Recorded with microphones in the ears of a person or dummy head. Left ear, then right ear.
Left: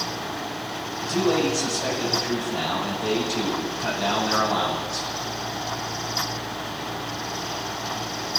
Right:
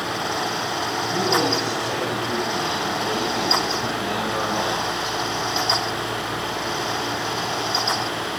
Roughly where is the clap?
I don't hear a clap.